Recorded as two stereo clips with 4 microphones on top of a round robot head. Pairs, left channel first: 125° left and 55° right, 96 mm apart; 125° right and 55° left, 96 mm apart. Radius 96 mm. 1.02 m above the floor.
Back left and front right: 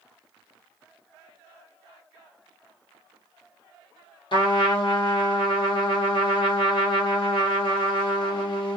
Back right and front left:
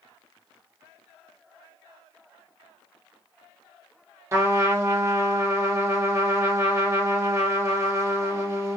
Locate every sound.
4.3 s a trumpet: 110° left, 1.2 m